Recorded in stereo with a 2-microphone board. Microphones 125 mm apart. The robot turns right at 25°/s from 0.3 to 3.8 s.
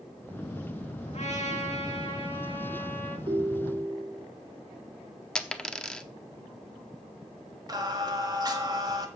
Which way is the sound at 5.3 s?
5° left (ahead or behind).